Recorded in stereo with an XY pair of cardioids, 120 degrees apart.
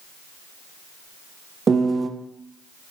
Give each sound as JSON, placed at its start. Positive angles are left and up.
{"t": 1.7, "sound": "a piano", "azimuth_deg": -30, "distance_m": 0.6}